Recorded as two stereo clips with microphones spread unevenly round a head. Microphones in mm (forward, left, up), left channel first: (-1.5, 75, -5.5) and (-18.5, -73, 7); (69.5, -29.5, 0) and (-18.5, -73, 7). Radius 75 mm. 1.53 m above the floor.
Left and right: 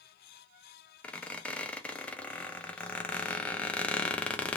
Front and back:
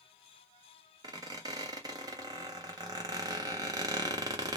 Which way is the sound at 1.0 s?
170° left.